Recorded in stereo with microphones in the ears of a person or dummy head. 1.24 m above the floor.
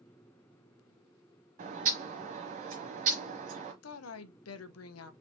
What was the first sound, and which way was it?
A bird, 35° right (ahead or behind).